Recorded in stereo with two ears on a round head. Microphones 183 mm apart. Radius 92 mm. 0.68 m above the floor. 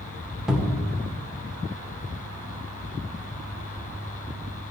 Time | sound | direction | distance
0.5 | a cupboard door | 5° right (ahead or behind) | 1.7 m